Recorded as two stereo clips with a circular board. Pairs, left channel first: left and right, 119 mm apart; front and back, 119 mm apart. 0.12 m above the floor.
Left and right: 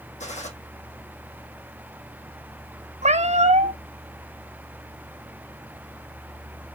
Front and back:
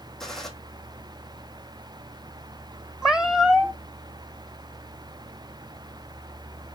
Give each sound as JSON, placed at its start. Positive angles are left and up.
{"t": 0.2, "sound": "a gunshot", "azimuth_deg": 85, "distance_m": 1.5}
{"t": 3.0, "sound": "a cat meowing", "azimuth_deg": -95, "distance_m": 0.7}